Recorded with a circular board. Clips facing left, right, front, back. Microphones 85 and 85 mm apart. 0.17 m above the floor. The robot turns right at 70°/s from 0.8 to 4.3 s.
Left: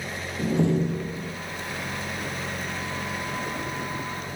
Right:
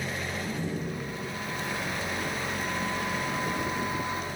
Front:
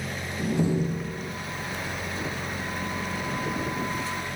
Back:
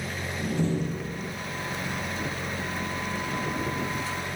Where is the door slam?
75° left, 4 m; by 1.3 s 115° left, 4 m.